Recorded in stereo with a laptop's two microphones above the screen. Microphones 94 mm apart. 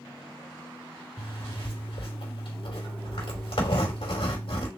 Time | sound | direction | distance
1.2 | a zipper | 80° left | 2.5 m